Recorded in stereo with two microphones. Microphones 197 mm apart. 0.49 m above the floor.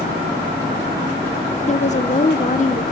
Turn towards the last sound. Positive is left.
turn(degrees=35)  # may be behind; listen again after turning